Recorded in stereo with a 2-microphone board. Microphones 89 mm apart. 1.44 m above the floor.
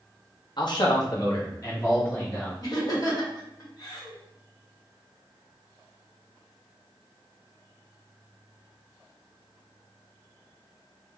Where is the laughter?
45° left (ahead or behind), 1.6 m.